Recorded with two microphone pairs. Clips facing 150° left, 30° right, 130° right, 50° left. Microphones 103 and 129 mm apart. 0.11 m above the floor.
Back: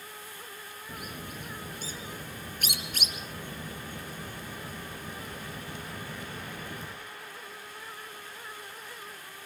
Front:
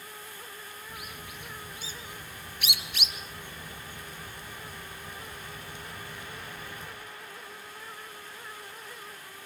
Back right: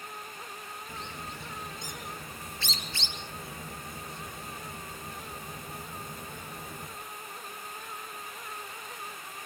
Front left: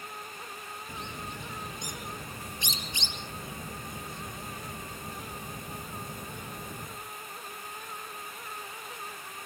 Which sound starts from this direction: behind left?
A bird, at 0.9 s.